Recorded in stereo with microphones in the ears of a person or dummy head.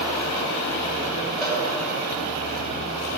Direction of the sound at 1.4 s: Centre (ahead or behind).